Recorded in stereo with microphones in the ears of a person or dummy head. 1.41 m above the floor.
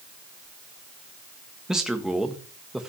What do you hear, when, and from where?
1.7 s a man speaking: 5° right (ahead or behind), 1.7 m